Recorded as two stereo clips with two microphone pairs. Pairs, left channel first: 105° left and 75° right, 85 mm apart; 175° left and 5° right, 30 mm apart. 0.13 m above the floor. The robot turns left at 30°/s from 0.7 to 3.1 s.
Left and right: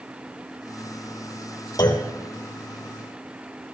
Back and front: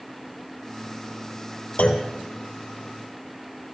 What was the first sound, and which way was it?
A clunk, 140° left.